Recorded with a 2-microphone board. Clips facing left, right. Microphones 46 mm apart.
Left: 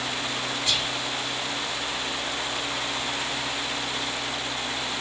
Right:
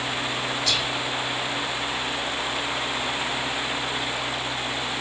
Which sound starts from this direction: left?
Whispering, at 0.7 s.